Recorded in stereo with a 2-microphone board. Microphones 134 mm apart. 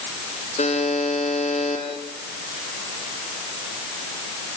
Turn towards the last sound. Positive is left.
turn(degrees=60)  # may be behind; listen again after turning